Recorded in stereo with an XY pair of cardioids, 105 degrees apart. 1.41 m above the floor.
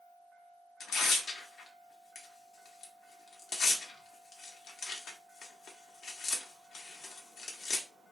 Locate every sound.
0.8 s tearing paper: 70° left, 0.7 m